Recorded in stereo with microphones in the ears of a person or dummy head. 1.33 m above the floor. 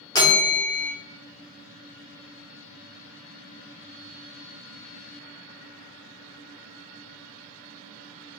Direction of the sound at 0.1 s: 20° left (ahead or behind).